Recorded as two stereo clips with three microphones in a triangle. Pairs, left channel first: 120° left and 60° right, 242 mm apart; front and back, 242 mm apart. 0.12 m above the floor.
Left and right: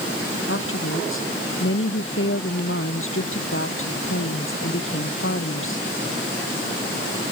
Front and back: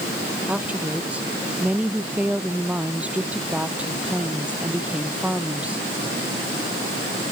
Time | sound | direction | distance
0.5 | a woman speaking | 95° left | ?